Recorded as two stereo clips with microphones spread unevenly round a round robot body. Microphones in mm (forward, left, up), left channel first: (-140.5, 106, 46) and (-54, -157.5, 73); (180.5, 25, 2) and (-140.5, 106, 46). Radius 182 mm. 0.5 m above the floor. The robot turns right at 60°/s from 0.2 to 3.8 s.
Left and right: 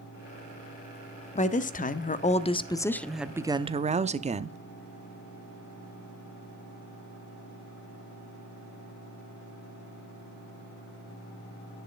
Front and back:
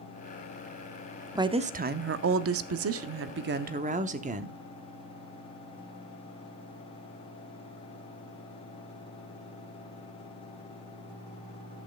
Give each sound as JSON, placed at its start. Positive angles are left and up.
{"t": 1.4, "sound": "a woman speaking", "azimuth_deg": 80, "distance_m": 0.8}